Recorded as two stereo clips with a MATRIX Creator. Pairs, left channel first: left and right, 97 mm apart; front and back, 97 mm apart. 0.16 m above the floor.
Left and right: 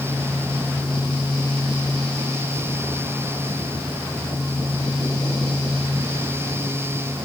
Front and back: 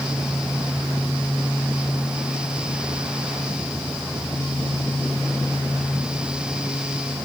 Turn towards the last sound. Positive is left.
No sound to turn to.